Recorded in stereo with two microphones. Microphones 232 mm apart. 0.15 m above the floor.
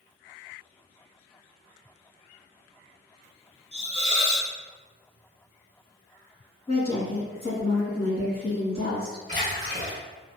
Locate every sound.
3.7 s a hiss: 30° right (ahead or behind), 0.7 m
6.7 s a woman speaking: 30° left (ahead or behind), 1.4 m
9.3 s a splash: 30° right (ahead or behind), 1.8 m